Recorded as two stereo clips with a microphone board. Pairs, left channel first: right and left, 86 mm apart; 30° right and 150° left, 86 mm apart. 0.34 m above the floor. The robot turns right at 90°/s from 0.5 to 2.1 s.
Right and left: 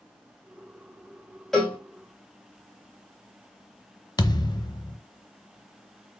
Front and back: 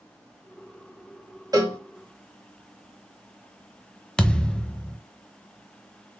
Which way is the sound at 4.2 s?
105° right.